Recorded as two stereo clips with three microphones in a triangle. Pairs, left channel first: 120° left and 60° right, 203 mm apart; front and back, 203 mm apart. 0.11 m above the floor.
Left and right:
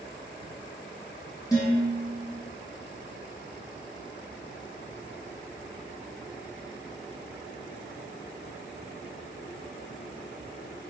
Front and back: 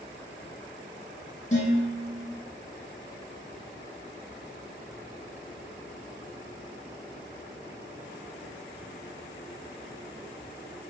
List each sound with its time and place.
1.5 s dishes clattering: 50° left, 3 m